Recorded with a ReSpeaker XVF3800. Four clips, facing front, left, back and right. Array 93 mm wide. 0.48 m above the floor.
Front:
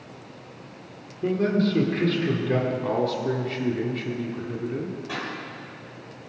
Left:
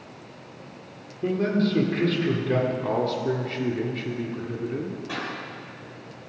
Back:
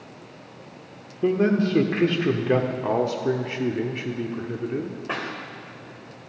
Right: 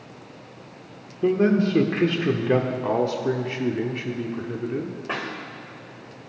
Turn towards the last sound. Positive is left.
turn(degrees=-135)